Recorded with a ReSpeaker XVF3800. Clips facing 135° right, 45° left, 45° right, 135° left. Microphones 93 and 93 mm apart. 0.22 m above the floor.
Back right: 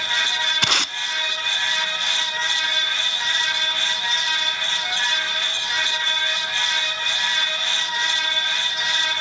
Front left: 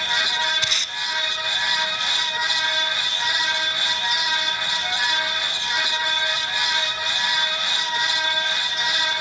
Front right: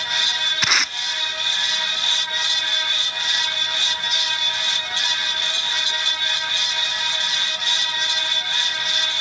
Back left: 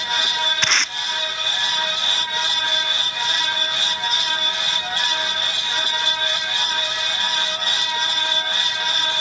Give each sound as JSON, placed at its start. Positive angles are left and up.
{"t": 0.6, "sound": "tape being pulled", "azimuth_deg": -130, "distance_m": 0.5}